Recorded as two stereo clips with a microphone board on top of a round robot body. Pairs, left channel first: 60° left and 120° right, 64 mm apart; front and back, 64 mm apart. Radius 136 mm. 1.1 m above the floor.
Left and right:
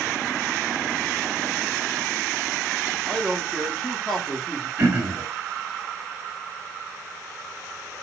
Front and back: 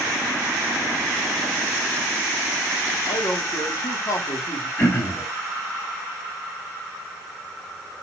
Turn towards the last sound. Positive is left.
turn(degrees=-50)